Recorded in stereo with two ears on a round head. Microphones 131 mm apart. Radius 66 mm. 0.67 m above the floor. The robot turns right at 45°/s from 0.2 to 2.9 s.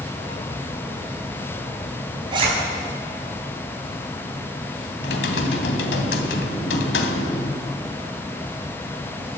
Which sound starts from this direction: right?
A zipper, at 2.3 s.